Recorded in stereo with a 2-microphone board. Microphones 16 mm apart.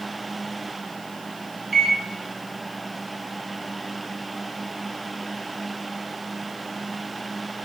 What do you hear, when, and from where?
1.7 s a microwave: 20° right (ahead or behind), 0.7 m